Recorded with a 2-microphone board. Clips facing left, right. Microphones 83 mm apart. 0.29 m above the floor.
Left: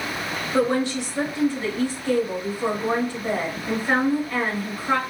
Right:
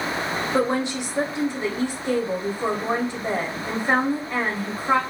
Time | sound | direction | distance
0.5 | a woman speaking | 20° right (ahead or behind) | 0.9 m